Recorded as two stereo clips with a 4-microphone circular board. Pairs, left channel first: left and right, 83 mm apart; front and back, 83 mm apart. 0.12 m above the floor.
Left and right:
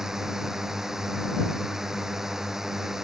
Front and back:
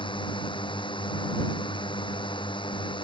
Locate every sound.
0.0 s a drone: 5° right